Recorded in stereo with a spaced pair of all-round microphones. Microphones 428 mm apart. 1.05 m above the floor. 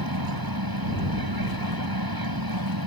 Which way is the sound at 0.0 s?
55° right (ahead or behind).